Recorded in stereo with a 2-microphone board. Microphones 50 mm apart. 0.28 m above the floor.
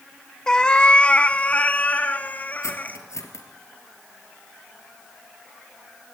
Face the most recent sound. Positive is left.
turn(degrees=80)